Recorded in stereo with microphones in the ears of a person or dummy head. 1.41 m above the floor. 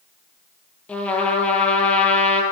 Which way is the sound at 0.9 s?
5° left (ahead or behind).